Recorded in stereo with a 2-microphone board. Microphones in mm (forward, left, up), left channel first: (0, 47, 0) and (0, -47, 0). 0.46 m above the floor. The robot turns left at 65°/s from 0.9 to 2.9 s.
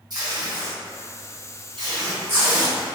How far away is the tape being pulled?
About 1.9 m.